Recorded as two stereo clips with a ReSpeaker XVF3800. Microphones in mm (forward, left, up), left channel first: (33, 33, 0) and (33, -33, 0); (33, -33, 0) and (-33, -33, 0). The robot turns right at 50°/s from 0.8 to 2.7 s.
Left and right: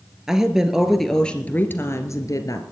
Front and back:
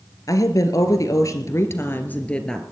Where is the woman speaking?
10° right, 2 m; by 2.6 s 85° left, 2 m.